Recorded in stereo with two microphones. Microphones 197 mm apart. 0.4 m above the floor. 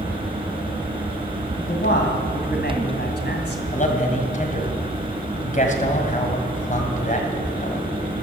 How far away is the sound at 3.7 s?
About 2 m.